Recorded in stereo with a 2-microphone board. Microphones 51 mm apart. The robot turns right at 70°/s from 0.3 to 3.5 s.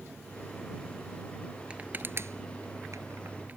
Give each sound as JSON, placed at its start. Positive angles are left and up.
{"t": 1.7, "sound": "crushing", "side_deg": -20}